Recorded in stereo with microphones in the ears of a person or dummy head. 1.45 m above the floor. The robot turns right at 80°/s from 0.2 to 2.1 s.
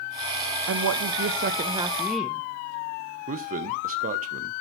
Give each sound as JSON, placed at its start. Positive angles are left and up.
{"t": 0.7, "sound": "a woman speaking", "azimuth_deg": -110, "distance_m": 0.6}
{"t": 3.3, "sound": "a man speaking", "side_deg": -40, "distance_m": 0.9}